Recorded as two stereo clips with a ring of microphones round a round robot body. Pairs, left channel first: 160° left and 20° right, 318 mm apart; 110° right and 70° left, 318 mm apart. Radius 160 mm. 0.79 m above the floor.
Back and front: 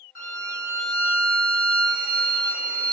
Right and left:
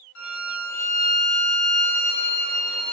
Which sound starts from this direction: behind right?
A violin, at 0.1 s.